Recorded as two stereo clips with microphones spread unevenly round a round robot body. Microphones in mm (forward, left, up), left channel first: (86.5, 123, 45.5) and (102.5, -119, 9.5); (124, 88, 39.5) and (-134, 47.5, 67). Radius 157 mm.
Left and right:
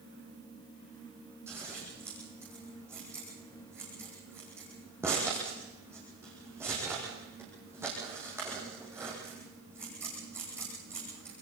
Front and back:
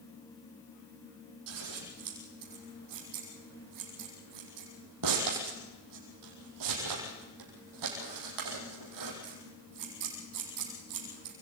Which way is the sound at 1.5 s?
170° right.